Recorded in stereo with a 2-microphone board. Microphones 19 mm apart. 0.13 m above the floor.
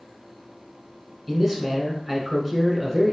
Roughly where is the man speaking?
Centre.